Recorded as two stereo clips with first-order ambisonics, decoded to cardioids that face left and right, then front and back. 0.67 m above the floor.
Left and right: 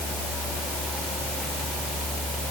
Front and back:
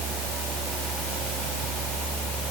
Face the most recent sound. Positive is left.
No sound to turn to.